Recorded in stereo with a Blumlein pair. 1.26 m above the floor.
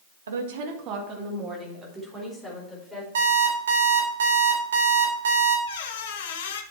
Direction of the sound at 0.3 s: 65° right.